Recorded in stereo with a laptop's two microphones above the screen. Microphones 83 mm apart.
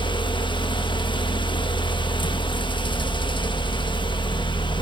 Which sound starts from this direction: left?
A fan, at 0.0 s.